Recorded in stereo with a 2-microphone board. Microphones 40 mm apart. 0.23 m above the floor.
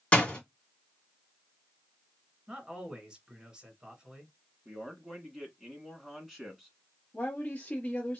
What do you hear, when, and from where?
0.1 s a door slam: 30° left (ahead or behind), 1.7 m
2.5 s a man speaking: 20° right (ahead or behind), 2 m
4.7 s a man speaking: centre (ahead or behind), 1.9 m
7.1 s a woman speaking: 30° left (ahead or behind), 1.1 m